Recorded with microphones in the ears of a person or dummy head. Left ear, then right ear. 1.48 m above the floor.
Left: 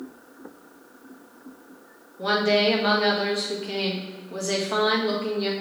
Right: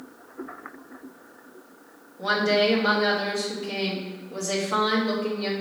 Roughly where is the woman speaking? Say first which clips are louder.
Left 1 dB; left.